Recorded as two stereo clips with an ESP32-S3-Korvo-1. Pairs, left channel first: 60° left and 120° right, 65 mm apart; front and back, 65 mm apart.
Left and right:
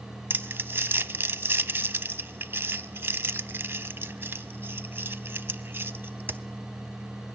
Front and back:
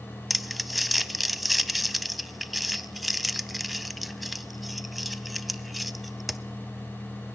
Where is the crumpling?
90° right, 0.5 m.